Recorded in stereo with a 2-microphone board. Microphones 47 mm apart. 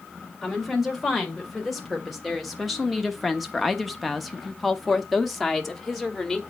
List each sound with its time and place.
0.4 s a woman speaking: centre (ahead or behind), 2 m